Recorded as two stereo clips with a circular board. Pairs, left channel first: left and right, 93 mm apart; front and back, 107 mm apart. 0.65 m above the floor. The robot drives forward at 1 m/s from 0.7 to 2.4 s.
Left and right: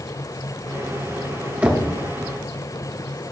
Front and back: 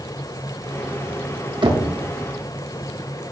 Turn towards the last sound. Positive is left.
turn(degrees=-170)